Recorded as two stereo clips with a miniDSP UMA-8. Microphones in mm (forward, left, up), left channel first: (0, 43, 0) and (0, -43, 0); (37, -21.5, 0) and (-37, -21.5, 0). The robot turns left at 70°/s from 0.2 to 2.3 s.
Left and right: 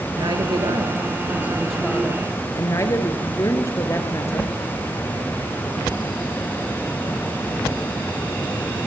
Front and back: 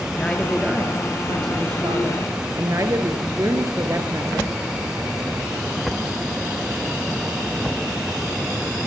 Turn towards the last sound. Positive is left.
turn(degrees=140)